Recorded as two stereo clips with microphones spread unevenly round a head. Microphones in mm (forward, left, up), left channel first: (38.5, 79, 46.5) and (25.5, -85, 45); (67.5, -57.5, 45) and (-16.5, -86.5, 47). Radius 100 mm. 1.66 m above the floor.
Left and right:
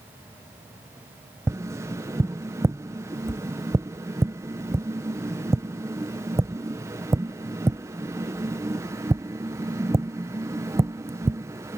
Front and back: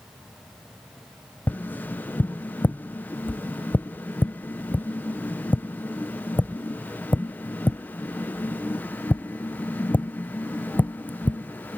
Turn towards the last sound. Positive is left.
turn(degrees=-35)